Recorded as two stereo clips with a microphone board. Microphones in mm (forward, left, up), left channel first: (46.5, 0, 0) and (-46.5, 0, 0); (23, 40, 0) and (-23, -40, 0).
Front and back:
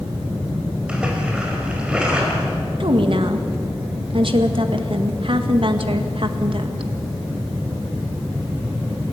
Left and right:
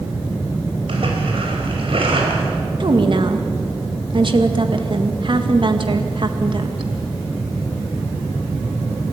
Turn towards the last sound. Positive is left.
turn(degrees=-150)